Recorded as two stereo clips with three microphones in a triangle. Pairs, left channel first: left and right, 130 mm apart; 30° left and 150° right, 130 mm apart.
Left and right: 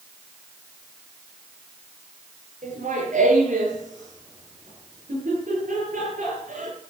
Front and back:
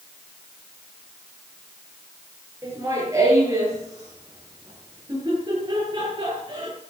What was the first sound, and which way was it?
Laughter, 85° right.